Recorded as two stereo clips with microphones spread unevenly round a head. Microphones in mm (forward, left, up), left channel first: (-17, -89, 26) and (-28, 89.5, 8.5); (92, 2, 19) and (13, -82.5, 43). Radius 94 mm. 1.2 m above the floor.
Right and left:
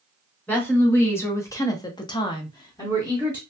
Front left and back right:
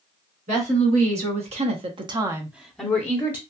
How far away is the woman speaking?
About 1.4 m.